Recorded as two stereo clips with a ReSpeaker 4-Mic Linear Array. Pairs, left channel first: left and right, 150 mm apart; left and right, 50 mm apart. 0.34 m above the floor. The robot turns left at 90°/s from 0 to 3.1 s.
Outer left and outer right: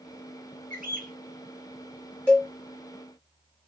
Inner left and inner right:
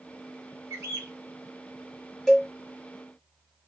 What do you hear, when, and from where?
0.7 s a bird: 65° right, 1.0 m; by 1.1 s 100° right, 1.0 m
2.3 s a cowbell: 10° left (ahead or behind), 1.1 m; by 2.5 s 10° right (ahead or behind), 1.1 m